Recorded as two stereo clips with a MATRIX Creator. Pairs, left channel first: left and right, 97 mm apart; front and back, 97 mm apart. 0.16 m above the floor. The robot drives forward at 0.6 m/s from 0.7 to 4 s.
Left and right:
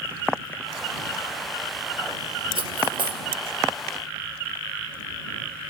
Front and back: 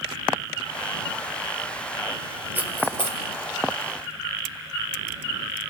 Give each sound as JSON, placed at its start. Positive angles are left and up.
{"t": 2.5, "sound": "cutlery clinking", "azimuth_deg": -110, "distance_m": 2.0}